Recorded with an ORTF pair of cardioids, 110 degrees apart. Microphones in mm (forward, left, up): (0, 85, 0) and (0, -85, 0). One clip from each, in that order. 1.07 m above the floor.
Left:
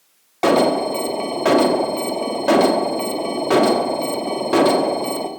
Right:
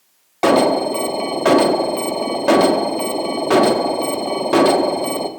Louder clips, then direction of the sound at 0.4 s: Right 2 dB; 10° right.